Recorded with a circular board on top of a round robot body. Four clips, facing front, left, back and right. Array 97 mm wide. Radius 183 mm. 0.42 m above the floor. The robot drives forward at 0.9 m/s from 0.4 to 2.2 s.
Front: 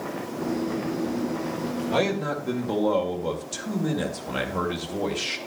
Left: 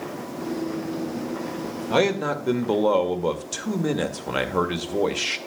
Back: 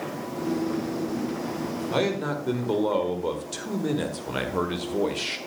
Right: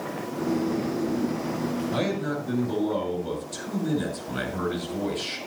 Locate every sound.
1.9 s a man speaking: 90° left, 1.9 m; by 5.4 s 95° left, 1.9 m